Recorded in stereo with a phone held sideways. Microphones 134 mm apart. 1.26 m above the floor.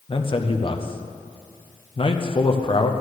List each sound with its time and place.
0.1 s a man speaking: 40° left (ahead or behind), 0.7 m